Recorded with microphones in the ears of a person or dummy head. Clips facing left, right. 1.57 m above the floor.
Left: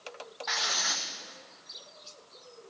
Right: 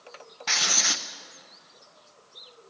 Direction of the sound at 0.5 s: 35° right (ahead or behind).